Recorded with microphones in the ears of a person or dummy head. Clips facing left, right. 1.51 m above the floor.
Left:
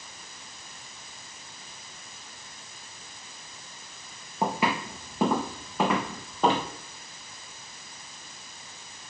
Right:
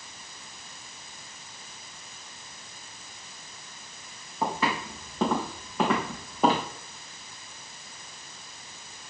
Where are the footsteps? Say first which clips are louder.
Left 1 dB; 10° left (ahead or behind), 4 m; by 6.6 s 10° right (ahead or behind), 3.5 m.